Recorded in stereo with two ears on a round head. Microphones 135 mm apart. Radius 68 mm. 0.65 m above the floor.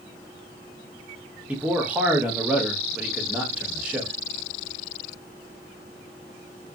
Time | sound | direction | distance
1.5 | a man speaking | 10° right (ahead or behind) | 0.7 m